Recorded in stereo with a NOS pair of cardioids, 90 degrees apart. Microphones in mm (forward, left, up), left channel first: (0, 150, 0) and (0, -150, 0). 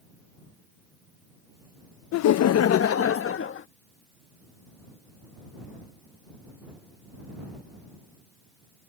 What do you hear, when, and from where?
2.1 s laughter: 65° left; by 3.7 s 45° left